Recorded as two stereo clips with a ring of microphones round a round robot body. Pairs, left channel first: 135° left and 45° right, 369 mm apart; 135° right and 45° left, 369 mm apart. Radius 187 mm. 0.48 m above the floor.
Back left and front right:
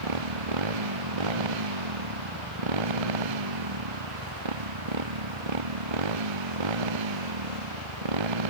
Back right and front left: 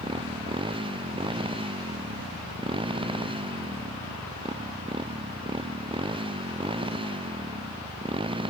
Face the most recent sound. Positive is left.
turn(degrees=-30)